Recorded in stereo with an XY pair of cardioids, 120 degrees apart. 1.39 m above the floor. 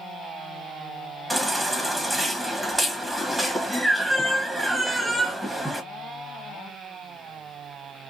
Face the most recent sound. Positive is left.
turn(degrees=-5)